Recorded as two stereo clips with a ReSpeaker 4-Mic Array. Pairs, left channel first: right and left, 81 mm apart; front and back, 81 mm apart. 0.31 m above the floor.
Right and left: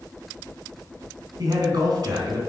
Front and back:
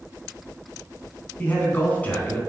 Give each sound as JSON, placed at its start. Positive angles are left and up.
{"t": 1.4, "sound": "a man speaking", "azimuth_deg": 65, "distance_m": 2.5}